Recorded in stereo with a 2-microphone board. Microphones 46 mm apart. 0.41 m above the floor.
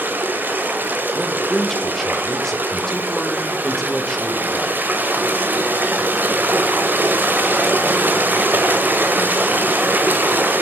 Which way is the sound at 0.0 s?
40° right (ahead or behind).